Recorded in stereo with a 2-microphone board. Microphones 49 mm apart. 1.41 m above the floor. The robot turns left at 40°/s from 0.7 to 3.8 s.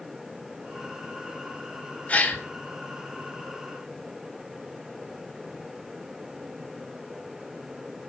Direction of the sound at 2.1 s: 30° left (ahead or behind).